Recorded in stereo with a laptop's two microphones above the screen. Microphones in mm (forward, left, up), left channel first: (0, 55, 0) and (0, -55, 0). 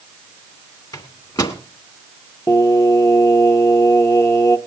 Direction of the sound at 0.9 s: 35° left (ahead or behind).